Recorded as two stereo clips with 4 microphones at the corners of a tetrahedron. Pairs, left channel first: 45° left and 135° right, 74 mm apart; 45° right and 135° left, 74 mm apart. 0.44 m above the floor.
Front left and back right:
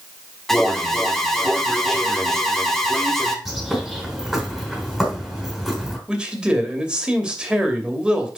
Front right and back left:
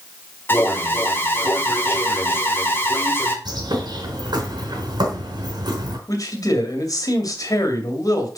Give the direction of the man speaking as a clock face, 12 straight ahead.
2 o'clock.